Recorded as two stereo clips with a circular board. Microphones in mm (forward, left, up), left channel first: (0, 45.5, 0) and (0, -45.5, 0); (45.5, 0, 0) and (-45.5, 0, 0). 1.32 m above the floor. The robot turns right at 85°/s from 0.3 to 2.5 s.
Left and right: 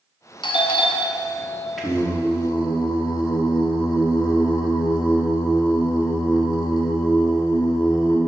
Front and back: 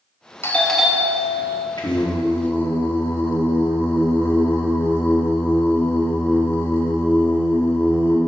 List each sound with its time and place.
0.4 s a doorbell: 60° left, 0.6 m; by 1.7 s 165° left, 0.6 m
1.8 s singing: straight ahead, 1.1 m; by 8.2 s 60° left, 1.1 m